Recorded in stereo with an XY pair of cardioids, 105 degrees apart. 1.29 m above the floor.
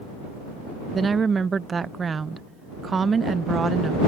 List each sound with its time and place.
0.9 s a woman speaking: 35° right